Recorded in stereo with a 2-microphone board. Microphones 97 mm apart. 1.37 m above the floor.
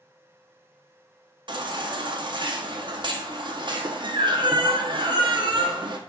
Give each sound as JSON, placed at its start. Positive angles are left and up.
{"t": 1.5, "sound": "a baby crying", "side_deg": -55, "distance_m": 0.5}